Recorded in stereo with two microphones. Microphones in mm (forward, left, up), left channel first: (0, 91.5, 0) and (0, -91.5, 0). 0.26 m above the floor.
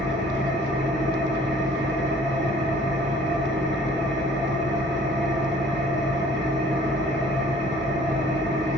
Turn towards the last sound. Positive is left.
turn(degrees=-75)  # may be behind; listen again after turning